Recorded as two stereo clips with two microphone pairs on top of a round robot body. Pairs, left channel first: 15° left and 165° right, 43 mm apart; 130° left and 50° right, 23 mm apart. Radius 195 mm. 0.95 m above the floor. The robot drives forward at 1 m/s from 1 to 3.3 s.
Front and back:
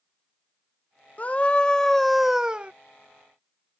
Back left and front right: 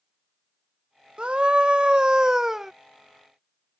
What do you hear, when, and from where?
1.2 s a scream: 35° right; by 2.7 s 110° right